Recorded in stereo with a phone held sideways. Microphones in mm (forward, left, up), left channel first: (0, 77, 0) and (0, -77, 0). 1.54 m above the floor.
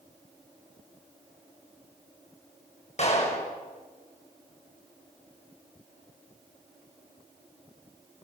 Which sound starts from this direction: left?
A clap, at 3.0 s.